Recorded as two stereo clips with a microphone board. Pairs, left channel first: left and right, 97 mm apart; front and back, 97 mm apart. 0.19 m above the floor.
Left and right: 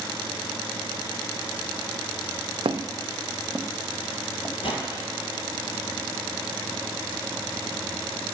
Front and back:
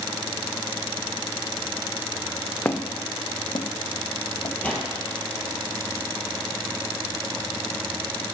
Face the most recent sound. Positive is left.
turn(degrees=75)